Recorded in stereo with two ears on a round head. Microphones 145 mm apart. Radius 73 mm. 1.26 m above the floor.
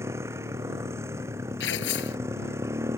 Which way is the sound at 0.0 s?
15° right (ahead or behind).